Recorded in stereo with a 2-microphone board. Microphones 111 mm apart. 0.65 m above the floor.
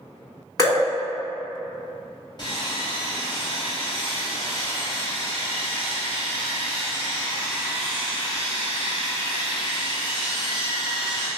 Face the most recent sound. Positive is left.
turn(degrees=40)  # may be behind; listen again after turning